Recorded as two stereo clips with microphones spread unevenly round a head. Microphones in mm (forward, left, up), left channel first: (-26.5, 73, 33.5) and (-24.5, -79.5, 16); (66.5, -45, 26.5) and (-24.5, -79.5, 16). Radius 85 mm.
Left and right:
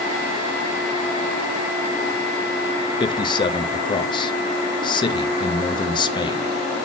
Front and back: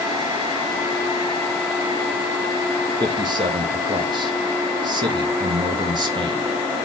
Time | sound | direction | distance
3.0 | a man speaking | 155° left | 1.0 m